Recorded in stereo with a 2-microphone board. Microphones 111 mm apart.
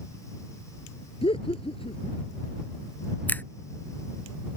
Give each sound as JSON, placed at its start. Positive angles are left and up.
{"t": 1.2, "sound": "laughter", "side_deg": 55}
{"t": 3.3, "sound": "a finger snap", "side_deg": 15}